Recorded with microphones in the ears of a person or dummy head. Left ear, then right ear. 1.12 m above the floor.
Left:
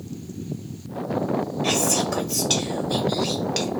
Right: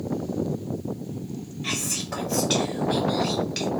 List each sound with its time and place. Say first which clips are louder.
1.6 s whispering: left 5 dB; 10° left (ahead or behind), 0.7 m